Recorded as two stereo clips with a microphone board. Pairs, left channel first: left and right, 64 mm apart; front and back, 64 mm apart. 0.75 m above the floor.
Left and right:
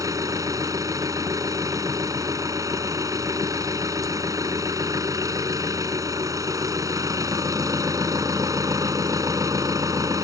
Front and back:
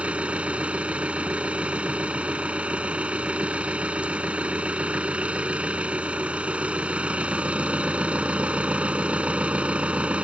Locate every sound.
0.0 s an engine running: 110° right